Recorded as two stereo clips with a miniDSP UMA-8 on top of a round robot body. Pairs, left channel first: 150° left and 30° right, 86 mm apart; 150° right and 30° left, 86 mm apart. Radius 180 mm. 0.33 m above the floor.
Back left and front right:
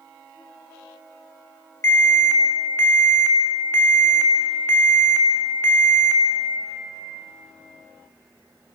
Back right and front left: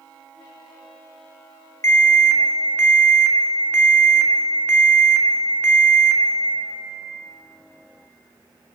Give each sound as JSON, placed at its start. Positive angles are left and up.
{"t": 1.8, "sound": "an alarm", "azimuth_deg": -175, "distance_m": 2.0}